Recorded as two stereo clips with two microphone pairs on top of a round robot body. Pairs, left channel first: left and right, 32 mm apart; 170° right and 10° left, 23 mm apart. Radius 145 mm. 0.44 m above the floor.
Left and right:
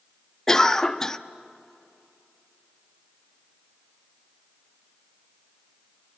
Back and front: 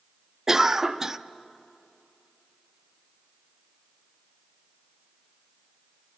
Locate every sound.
0.5 s a cough: 30° left, 1.0 m